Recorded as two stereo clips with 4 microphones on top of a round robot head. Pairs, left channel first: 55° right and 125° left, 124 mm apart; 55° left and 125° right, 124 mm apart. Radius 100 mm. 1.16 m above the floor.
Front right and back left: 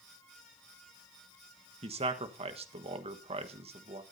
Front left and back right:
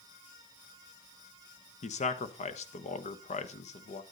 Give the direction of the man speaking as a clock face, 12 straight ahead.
9 o'clock.